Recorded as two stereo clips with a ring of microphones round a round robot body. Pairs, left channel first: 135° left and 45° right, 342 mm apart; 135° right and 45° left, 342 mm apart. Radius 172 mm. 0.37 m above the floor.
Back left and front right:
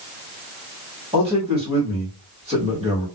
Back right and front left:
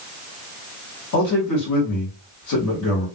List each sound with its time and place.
1.1 s a man speaking: 115° right, 1.5 m